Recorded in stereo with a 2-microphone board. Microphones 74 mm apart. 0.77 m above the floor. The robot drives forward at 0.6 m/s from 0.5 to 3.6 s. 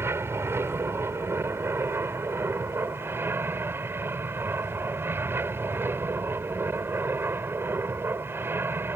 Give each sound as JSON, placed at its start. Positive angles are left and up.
{"t": 0.0, "sound": "an aircraft", "side_deg": -35}